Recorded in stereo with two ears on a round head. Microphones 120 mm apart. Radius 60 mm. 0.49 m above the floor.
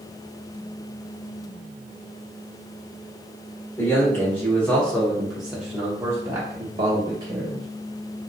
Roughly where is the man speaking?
Centre.